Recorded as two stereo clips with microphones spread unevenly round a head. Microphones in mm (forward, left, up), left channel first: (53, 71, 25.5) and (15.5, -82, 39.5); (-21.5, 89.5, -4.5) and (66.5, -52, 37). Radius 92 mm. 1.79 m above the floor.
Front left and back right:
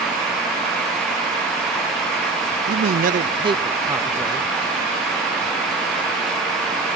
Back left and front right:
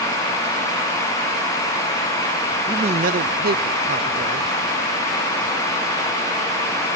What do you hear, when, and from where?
2.7 s a man speaking: 120° right, 0.6 m; by 4.5 s 20° right, 1.5 m